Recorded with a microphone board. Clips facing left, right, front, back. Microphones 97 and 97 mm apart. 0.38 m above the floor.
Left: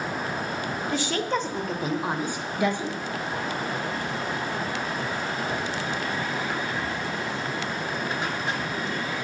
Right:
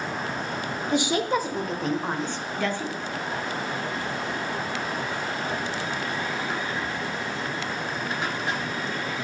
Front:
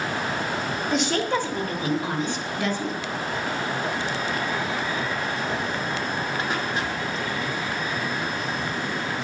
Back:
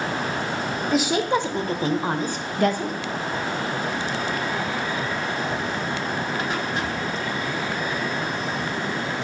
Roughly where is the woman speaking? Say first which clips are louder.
Right 4 dB, back 3 dB; right.